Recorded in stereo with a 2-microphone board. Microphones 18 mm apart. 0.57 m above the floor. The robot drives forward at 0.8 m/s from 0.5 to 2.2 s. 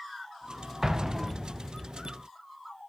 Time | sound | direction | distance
0.8 | an explosion | 25° right (ahead or behind) | 0.9 m